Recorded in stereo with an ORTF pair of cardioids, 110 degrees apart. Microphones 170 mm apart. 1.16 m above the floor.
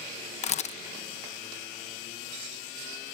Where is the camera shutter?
45° left.